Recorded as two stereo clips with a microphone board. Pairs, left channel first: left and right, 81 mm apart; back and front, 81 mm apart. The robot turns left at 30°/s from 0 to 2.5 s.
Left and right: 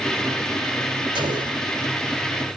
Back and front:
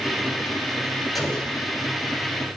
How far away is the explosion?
About 3.5 m.